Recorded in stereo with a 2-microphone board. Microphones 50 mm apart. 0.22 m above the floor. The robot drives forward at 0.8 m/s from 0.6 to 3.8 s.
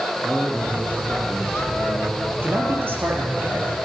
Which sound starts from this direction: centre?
A man speaking, at 0.2 s.